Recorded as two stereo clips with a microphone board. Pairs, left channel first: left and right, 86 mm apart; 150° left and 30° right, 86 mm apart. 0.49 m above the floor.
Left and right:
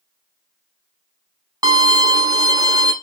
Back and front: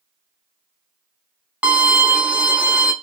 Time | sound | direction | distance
1.6 | a violin | 100° right | 0.7 m